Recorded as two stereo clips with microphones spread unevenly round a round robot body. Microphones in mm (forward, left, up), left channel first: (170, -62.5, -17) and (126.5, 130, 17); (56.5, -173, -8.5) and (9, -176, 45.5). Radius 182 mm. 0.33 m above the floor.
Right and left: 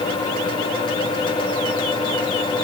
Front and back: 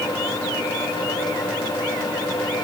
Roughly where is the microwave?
No microwave in this recording.